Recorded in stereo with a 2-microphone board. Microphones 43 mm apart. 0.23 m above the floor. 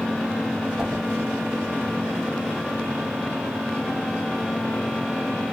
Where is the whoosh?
20° right (ahead or behind), 2.5 m.